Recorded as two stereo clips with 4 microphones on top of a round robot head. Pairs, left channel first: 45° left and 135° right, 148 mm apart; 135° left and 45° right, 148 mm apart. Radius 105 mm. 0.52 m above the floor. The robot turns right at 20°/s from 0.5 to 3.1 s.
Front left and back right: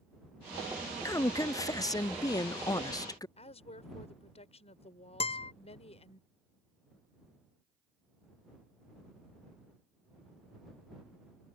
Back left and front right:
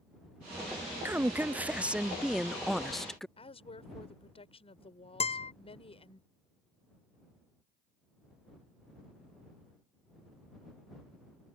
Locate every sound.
1.1 s a woman speaking: 10° left; by 3.3 s 55° left
3.4 s a woman speaking: 90° left
5.2 s a guitar: 95° left